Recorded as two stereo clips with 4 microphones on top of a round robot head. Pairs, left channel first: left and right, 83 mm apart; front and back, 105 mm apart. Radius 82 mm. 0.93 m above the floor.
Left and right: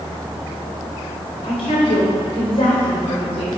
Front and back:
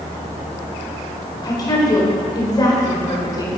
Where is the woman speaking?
55° left, 3.5 m.